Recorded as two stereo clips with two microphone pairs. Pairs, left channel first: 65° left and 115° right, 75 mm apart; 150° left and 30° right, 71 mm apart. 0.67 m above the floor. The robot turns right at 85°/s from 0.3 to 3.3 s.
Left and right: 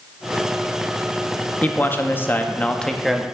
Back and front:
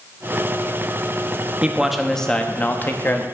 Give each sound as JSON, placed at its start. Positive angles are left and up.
{"t": 1.6, "sound": "a man speaking", "azimuth_deg": 25, "distance_m": 0.5}